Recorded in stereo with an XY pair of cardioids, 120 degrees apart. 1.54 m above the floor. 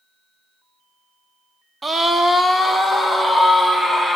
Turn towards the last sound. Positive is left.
turn(degrees=-10)